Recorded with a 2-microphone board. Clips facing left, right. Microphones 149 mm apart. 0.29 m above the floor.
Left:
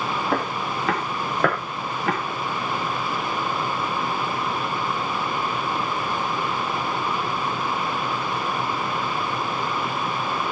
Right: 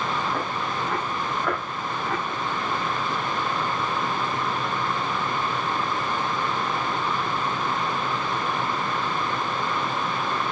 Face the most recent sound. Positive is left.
turn(degrees=85)